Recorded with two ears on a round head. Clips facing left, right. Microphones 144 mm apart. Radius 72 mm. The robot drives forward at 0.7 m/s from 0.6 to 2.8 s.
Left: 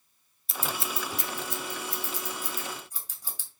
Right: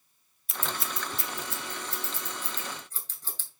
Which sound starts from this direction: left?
Scissors, at 0.5 s.